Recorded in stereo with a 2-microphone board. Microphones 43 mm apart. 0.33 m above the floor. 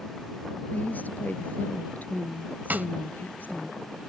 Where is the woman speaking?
45° left (ahead or behind).